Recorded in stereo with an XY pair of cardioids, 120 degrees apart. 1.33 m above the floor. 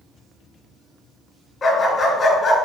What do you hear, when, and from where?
1.6 s a dog barking: 30° left, 3.5 m